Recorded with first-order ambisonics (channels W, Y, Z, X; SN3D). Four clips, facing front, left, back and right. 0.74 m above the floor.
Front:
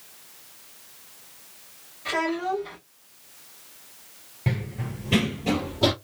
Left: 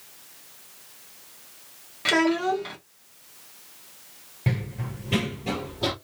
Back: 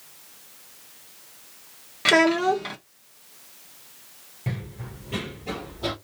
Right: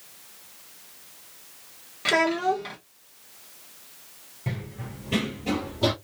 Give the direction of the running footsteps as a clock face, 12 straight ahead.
10 o'clock.